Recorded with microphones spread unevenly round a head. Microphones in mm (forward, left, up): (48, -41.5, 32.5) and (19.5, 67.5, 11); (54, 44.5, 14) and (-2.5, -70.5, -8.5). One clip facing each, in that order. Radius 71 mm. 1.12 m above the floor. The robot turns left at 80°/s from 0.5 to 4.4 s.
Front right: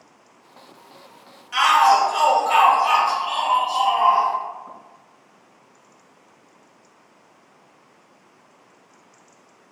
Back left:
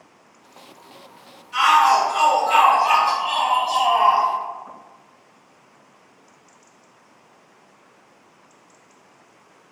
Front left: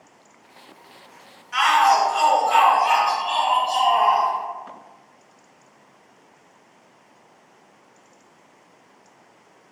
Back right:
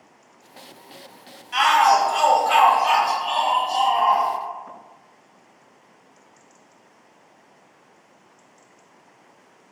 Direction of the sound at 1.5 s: 60° right.